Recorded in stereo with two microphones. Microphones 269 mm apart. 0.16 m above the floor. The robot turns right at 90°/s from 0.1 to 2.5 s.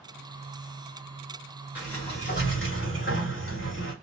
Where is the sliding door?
5° right, 2.5 m; by 3.9 s 60° left, 2.5 m.